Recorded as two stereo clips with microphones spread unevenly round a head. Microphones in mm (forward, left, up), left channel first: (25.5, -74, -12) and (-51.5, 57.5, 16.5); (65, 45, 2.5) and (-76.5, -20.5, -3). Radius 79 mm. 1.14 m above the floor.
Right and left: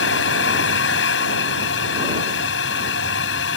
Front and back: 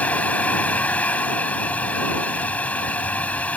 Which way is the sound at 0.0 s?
55° right.